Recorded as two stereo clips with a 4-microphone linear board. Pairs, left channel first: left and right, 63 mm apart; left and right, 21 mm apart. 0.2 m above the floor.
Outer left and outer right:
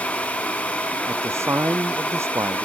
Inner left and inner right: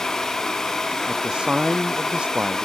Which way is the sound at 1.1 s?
45° right (ahead or behind).